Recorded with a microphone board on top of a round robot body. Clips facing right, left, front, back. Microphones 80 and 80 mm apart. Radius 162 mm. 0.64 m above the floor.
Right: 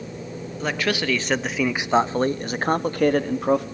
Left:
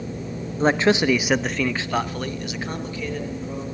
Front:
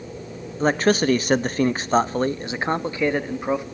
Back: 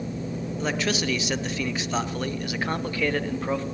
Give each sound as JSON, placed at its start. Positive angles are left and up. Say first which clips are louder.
{"t": 0.6, "sound": "a man speaking", "louder": "left 7 dB, front 9 dB", "azimuth_deg": 40, "distance_m": 1.3}